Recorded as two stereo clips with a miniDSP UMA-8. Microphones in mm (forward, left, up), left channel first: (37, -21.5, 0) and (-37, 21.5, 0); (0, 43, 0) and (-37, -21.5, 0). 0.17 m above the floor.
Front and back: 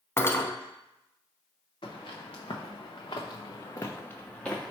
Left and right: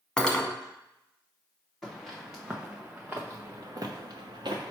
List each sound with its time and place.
0.2 s cutlery clinking: 5° right, 0.7 m
1.8 s footsteps: 25° right, 1.4 m; by 4.7 s 115° right, 1.1 m